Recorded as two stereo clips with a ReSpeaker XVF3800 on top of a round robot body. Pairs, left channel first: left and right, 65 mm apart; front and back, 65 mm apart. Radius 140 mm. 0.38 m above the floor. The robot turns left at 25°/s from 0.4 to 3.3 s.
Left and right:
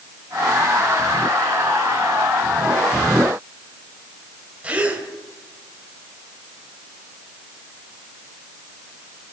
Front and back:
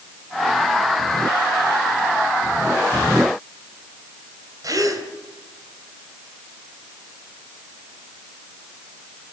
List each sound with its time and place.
4.6 s a gasp: 160° right, 3.5 m